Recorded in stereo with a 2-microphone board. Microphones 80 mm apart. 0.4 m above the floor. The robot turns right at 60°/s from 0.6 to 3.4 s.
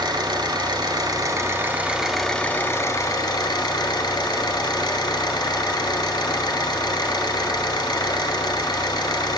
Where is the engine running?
95° right, 1.4 m; by 9.4 s 75° left, 1.4 m.